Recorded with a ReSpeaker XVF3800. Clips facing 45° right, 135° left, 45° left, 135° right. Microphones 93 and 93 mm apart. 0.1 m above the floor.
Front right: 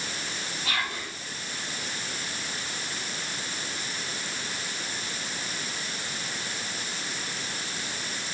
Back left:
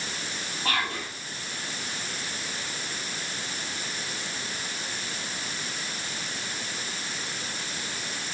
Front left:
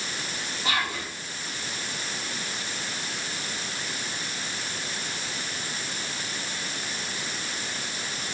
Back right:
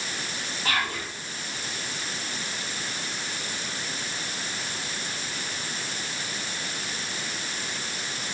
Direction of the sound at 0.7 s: 115° left.